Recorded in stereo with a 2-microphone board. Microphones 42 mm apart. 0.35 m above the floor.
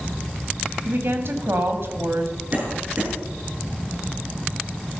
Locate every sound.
0.8 s a woman speaking: 60° right (ahead or behind), 2.5 m
2.5 s a cough: 40° right (ahead or behind), 5.5 m